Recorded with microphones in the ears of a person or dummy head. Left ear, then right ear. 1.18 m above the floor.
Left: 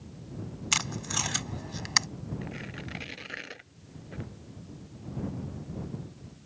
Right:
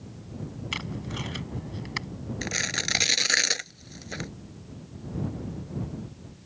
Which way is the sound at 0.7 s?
50° left (ahead or behind).